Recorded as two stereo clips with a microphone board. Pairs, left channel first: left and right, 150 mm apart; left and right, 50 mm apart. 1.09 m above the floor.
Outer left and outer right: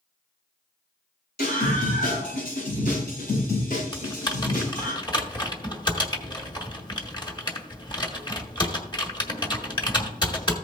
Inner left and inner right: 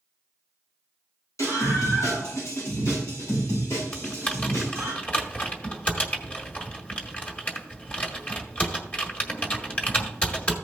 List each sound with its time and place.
1.4 s a scream: 65° left (ahead or behind), 5 m
3.9 s typing on a keyboard: 25° left (ahead or behind), 1.6 m